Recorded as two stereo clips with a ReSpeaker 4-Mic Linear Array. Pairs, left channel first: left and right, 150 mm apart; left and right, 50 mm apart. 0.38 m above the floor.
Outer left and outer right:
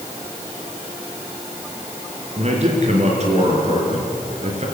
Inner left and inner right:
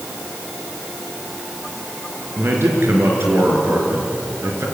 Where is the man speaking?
50° right (ahead or behind), 5 m.